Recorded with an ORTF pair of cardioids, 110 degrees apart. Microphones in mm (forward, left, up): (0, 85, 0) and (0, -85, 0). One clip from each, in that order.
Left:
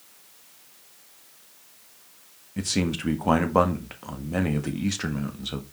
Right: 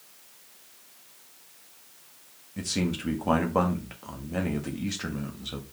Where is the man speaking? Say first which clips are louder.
Left 3 dB; 25° left, 1.6 m.